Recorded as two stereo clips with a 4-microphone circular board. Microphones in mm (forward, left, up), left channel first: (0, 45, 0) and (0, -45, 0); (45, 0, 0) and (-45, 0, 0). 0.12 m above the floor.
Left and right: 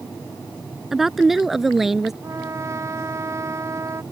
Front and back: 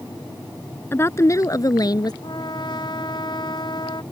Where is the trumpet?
35° right.